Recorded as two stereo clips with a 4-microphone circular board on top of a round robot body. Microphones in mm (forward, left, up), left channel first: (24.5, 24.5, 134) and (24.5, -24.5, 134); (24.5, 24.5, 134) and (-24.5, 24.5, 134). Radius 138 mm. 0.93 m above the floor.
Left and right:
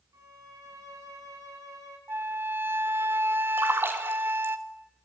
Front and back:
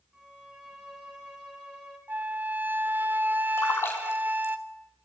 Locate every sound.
0.1 s a violin: 105° right, 3.5 m
2.1 s a flute: 130° right, 1.1 m
3.6 s a splash: 45° right, 1.6 m